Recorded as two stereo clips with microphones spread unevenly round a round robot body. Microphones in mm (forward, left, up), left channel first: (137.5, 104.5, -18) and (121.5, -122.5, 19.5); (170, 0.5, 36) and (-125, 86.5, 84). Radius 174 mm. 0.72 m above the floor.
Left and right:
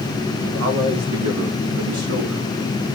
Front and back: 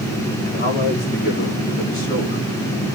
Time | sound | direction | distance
0.4 | a man speaking | 80° right | 7 m